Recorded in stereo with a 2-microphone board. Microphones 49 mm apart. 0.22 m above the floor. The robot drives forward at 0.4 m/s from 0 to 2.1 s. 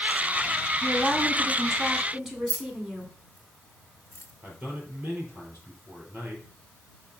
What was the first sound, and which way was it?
A woman speaking, 10° right (ahead or behind).